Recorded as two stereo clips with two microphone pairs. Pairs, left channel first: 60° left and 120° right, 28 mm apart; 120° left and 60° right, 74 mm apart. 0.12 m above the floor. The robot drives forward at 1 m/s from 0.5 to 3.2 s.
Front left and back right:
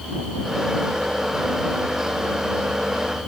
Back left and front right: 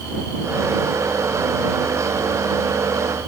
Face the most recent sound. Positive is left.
No sound to turn to.